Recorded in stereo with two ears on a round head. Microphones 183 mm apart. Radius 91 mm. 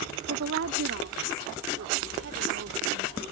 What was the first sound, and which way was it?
A woman speaking, 75° right (ahead or behind).